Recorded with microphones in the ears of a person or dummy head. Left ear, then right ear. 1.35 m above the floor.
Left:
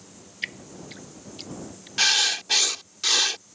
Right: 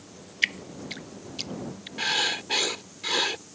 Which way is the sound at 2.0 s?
55° left (ahead or behind).